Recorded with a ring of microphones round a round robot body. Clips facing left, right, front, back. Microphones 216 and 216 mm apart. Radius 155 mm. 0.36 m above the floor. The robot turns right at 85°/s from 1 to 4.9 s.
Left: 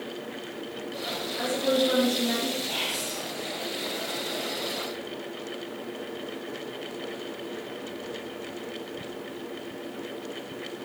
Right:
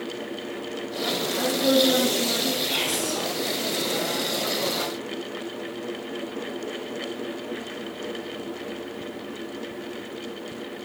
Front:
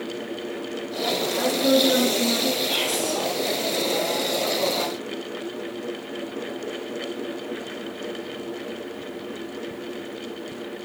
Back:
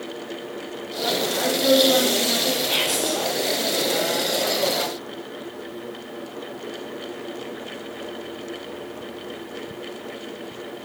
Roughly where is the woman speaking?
Ahead right.